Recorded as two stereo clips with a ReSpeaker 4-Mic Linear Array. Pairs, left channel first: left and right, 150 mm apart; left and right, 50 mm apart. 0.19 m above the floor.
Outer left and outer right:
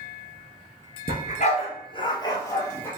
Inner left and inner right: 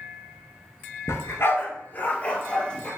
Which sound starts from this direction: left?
A dog barking, at 1.1 s.